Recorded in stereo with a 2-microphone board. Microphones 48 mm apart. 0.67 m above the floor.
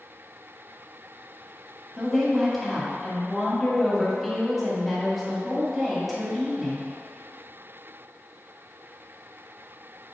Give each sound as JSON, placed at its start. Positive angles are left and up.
{"t": 2.0, "sound": "a woman speaking", "side_deg": 0, "distance_m": 1.6}